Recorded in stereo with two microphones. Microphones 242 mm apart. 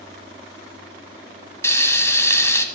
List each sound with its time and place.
1.6 s frying: 10° left (ahead or behind), 1.4 m